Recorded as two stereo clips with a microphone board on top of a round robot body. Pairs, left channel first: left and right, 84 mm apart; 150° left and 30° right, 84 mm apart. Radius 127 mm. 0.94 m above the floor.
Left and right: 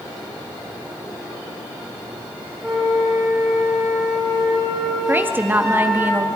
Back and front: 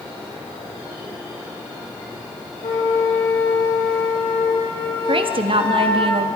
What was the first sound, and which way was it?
A flute, straight behind.